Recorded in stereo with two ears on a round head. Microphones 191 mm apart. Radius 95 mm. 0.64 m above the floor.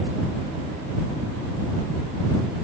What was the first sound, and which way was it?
Only background noise.